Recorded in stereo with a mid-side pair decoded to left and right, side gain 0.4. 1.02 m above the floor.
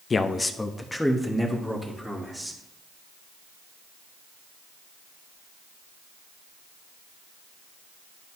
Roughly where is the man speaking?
Ahead left.